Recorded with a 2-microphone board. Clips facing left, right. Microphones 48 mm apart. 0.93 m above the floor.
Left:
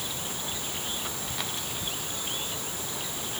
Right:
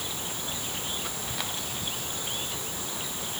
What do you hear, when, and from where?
Only background noise.